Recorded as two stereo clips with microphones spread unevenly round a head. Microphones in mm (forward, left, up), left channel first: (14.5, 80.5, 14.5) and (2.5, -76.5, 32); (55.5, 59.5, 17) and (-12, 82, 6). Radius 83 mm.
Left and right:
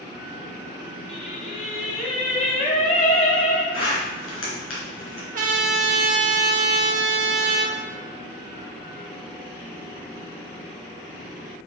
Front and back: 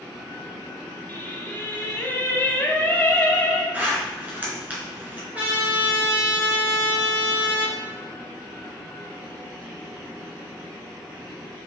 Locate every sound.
1.1 s singing: 35° left, 1.9 m
3.7 s a zipper: 95° left, 3.5 m
5.3 s a trumpet: 115° right, 1.3 m